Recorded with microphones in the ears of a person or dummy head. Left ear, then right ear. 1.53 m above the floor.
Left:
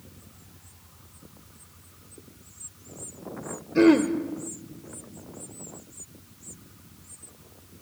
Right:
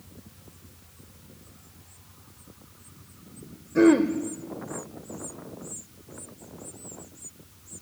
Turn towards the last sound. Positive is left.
turn(degrees=15)  # may be behind; listen again after turning